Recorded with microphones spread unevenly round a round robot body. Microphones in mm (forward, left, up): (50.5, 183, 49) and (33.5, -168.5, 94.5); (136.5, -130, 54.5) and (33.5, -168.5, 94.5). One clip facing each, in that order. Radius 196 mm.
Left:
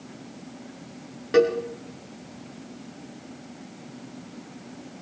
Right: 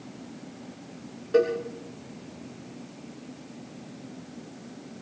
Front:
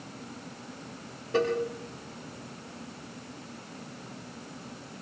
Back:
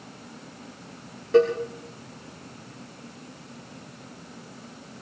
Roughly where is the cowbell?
Behind left.